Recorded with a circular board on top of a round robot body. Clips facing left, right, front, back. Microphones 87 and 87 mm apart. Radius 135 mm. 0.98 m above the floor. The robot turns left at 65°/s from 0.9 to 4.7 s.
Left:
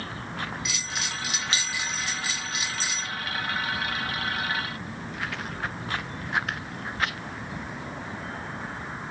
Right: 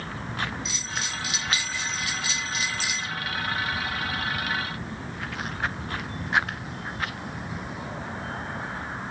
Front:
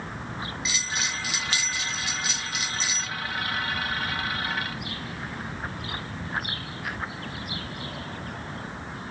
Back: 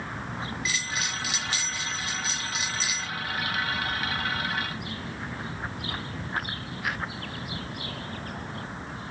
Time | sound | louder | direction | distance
0.7 | a bell | even, front 2 dB | 70° left | 1.3 m